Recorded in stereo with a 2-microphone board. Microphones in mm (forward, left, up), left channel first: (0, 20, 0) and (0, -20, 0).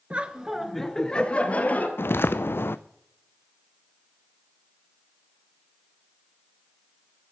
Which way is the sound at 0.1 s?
30° right (ahead or behind).